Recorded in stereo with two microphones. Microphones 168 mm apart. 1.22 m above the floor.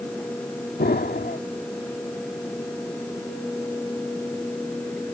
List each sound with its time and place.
0.8 s an explosion: 70° left (ahead or behind)